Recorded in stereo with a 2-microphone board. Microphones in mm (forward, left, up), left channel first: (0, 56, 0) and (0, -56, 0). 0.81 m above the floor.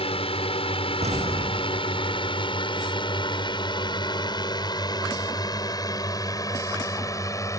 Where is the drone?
65° left (ahead or behind); by 7.6 s 30° left (ahead or behind).